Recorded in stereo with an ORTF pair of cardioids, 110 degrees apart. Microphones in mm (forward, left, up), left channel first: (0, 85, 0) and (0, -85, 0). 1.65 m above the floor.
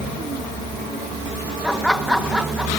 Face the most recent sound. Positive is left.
turn(degrees=-5)